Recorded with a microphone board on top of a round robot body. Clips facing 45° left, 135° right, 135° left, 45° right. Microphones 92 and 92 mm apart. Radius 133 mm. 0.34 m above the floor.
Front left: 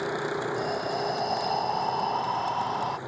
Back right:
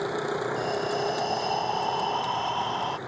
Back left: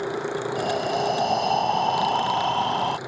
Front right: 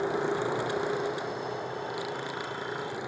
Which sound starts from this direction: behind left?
Breathing, at 0.6 s.